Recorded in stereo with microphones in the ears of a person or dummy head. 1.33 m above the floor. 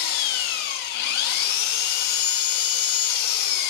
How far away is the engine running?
About 0.9 m.